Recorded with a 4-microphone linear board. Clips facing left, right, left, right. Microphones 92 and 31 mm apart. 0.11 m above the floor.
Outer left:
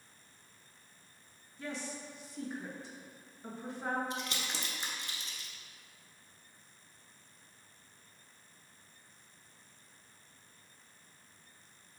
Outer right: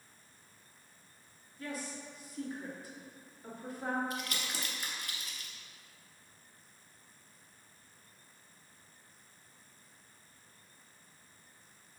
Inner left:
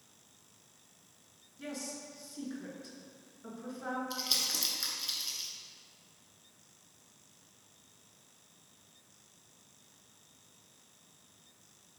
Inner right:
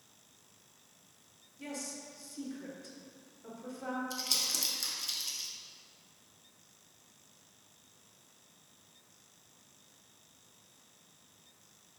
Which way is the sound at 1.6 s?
25° left (ahead or behind).